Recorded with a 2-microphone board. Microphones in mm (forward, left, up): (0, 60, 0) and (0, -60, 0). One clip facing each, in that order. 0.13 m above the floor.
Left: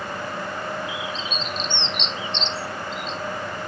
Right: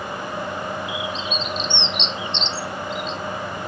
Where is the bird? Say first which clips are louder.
Right 3 dB; 70° right (ahead or behind), 0.7 m.